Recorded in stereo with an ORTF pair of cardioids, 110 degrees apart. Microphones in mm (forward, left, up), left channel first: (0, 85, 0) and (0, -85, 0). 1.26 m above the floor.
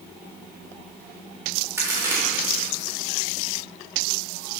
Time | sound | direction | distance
1.8 | a crack | 15° right | 2.5 m